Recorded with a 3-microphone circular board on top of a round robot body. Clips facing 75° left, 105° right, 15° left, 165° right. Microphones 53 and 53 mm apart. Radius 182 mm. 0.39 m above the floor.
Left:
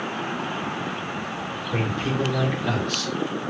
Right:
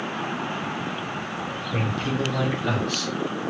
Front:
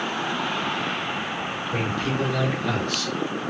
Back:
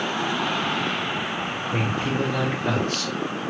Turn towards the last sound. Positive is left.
turn(degrees=175)